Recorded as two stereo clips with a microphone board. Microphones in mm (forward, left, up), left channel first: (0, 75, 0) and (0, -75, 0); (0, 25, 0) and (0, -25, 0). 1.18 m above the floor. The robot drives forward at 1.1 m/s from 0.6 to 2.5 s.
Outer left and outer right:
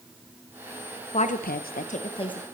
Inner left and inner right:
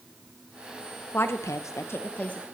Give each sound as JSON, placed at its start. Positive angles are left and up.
{"t": 1.1, "sound": "a woman speaking", "side_deg": 45, "distance_m": 0.7}